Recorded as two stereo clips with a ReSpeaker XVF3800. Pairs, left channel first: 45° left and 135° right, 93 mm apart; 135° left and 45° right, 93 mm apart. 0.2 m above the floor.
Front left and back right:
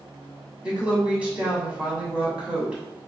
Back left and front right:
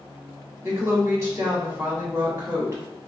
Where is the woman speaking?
70° right, 1.6 m.